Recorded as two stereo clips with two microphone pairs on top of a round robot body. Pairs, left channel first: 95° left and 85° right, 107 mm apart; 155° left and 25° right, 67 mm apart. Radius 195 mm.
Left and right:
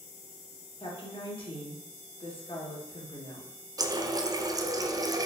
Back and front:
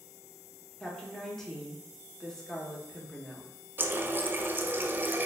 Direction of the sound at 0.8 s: 75° left.